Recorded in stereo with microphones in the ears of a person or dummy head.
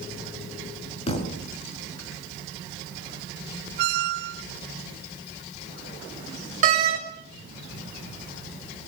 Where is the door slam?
45° right (ahead or behind), 4.5 m.